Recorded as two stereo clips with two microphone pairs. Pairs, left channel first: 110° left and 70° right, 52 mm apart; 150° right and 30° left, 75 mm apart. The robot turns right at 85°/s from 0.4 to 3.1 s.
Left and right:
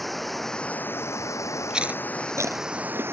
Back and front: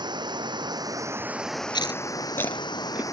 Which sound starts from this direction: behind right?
Chewing, at 1.7 s.